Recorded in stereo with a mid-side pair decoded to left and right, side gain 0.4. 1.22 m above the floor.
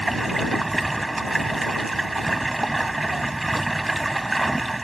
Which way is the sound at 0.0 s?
15° right.